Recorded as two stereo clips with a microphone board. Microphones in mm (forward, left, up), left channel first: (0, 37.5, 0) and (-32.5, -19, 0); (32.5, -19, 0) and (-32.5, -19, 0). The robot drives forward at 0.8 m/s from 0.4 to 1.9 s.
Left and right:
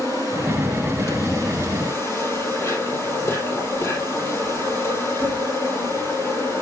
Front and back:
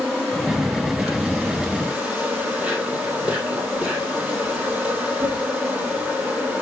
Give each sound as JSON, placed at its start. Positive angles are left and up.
{"t": 0.0, "sound": "an insect", "azimuth_deg": 85, "distance_m": 3.0}